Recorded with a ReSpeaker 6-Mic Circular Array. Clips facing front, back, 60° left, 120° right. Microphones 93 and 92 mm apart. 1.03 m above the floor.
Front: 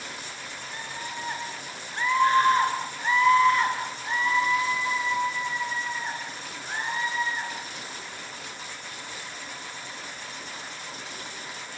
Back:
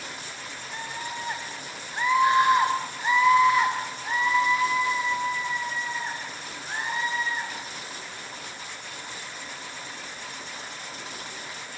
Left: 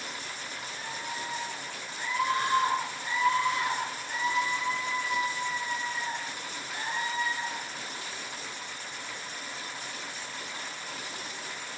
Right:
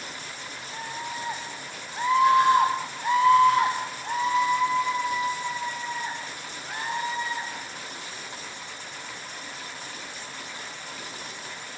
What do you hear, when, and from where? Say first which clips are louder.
0.7 s a scream: back 3 dB, right 5 dB; 110° right, 7.5 m; by 7.5 s 90° right, 15.5 m